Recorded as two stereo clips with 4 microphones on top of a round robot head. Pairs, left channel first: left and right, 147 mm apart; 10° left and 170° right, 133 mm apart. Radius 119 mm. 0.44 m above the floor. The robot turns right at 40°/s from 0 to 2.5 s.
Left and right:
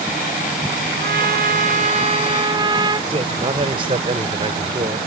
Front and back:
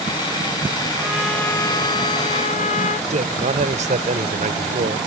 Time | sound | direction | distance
1.0 | a trumpet | 85° right | ?
3.1 | a man speaking | 145° right | ?